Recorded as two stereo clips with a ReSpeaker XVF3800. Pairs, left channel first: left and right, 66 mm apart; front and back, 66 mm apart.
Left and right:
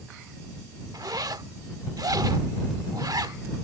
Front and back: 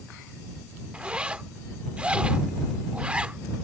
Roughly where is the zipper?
Right.